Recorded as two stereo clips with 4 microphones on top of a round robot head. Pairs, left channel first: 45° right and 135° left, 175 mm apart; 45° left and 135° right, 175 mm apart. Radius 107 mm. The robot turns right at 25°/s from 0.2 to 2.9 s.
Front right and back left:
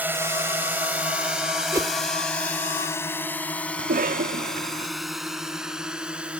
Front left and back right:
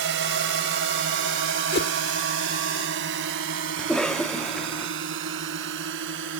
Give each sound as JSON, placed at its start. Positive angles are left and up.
{"t": 0.0, "sound": "a drone", "azimuth_deg": -145}
{"t": 1.7, "sound": "a whoosh", "azimuth_deg": 60}
{"t": 3.8, "sound": "a cough", "azimuth_deg": 130}